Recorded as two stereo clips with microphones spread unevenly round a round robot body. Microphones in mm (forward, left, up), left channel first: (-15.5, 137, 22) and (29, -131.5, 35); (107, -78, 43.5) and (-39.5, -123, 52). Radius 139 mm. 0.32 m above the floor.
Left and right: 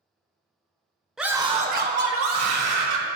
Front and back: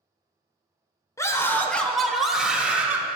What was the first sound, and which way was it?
A scream, 15° left.